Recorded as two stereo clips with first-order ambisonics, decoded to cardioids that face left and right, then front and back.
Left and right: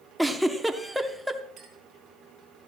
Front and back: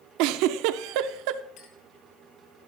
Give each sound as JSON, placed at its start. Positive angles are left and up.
{"t": 0.2, "sound": "a giggle", "azimuth_deg": 180, "distance_m": 0.8}
{"t": 1.6, "sound": "a clink", "azimuth_deg": -30, "distance_m": 3.5}